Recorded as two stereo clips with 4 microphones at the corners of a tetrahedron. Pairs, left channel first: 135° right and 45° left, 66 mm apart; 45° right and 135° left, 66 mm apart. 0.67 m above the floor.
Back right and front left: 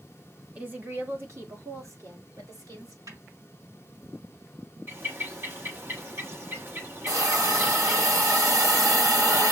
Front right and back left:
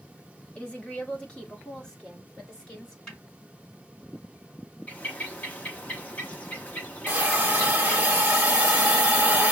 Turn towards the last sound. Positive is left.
turn(degrees=65)